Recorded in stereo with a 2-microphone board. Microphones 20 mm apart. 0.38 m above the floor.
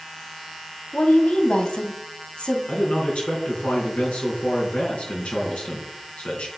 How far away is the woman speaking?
About 2 m.